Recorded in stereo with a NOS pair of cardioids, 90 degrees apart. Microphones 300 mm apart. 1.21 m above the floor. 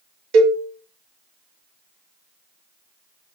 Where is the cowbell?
65° right, 1.0 m.